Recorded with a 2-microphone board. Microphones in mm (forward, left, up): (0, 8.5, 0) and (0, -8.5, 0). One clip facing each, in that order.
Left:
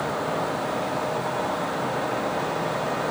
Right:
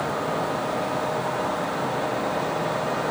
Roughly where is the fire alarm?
I don't hear a fire alarm.